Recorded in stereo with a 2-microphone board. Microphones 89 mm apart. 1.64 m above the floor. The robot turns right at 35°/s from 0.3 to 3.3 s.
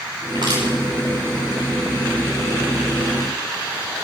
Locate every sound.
0.3 s crushing: 65° right (ahead or behind), 9.5 m; by 0.6 s 55° right (ahead or behind), 9.5 m